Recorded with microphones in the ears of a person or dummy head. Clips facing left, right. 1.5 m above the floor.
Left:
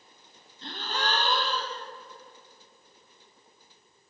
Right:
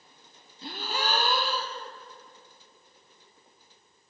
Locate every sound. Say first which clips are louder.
0.6 s a gasp: even; 10° right (ahead or behind), 0.6 m